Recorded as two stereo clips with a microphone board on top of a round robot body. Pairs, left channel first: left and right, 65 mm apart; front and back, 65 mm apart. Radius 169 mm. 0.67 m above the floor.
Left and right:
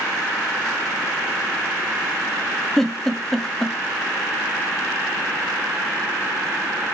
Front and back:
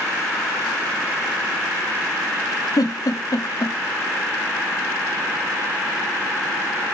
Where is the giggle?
5° left, 1.6 m.